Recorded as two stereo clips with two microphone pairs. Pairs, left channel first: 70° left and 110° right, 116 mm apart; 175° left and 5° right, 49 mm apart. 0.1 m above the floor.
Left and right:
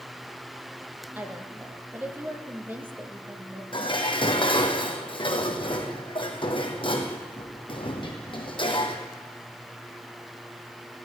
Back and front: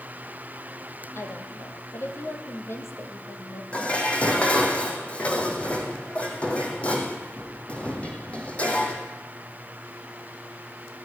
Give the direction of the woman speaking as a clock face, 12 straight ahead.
6 o'clock.